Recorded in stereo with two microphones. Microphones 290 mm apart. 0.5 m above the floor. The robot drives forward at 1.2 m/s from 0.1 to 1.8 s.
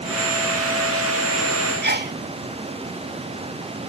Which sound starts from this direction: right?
A sneeze, at 1.8 s.